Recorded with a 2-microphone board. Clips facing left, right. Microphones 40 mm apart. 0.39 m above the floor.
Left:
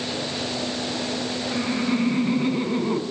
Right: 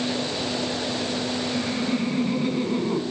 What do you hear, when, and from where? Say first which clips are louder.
1.5 s laughter: left 5 dB; 20° left (ahead or behind), 5 m; by 3.0 s 15° left (ahead or behind), 4 m